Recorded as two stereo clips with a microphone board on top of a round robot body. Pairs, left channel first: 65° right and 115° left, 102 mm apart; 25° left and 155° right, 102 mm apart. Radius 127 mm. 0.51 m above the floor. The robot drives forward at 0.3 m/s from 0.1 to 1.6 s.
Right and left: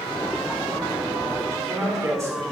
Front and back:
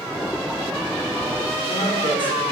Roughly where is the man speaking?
Ahead left.